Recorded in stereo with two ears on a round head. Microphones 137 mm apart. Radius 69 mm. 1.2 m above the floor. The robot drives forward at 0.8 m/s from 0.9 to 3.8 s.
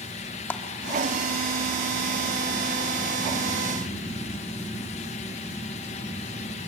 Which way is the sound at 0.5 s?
15° left (ahead or behind).